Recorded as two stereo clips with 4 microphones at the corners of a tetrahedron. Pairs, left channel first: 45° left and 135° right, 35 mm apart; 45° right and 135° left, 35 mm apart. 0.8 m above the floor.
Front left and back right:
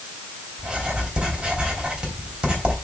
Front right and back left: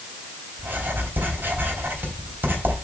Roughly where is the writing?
Behind.